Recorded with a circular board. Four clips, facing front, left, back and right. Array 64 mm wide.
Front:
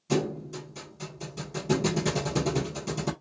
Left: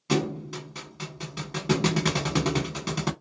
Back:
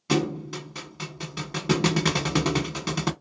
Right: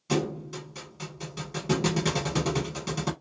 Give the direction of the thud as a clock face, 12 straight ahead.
7 o'clock.